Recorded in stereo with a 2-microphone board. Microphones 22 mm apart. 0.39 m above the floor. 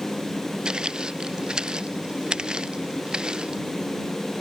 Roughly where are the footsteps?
Right.